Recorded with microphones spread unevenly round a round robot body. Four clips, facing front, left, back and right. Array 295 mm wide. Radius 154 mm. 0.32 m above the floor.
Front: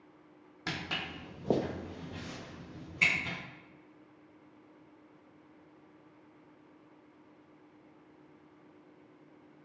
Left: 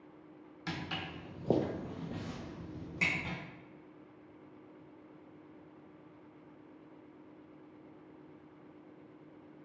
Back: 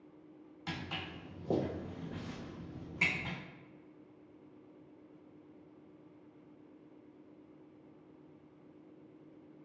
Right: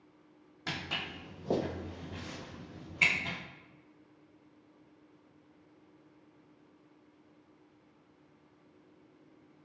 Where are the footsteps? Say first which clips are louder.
Even, front 4 dB; 5° right, 0.9 m; by 3.4 s 125° left, 1.1 m.